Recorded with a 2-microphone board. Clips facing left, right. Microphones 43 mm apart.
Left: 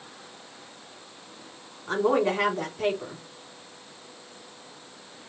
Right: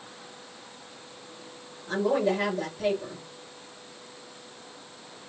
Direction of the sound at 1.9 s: 60° left (ahead or behind).